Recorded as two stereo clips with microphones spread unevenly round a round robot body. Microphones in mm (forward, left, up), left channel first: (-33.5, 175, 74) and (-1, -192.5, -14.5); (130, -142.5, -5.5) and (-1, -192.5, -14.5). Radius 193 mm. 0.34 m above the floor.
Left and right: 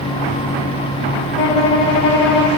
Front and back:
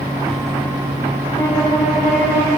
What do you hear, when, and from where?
1.4 s a violin: 85° left, 1.2 m